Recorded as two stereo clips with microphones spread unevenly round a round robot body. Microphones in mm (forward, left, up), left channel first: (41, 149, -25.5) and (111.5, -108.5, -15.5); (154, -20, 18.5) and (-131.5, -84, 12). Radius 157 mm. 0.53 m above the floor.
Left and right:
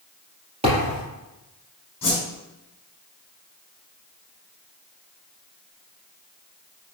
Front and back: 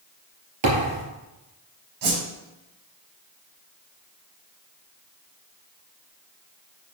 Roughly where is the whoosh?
Behind.